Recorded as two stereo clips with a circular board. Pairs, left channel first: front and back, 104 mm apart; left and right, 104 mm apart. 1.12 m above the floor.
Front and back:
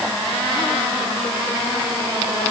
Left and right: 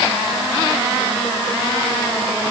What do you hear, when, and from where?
Only background noise.